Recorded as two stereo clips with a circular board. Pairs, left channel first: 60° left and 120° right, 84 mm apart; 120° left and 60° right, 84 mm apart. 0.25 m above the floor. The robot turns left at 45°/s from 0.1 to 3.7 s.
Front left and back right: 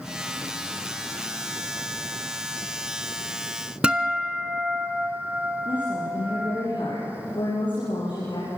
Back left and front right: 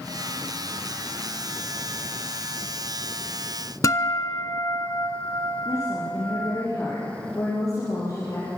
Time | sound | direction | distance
3.8 | a guitar | 165° left | 1.0 m
5.7 | a woman speaking | 75° left | 6.5 m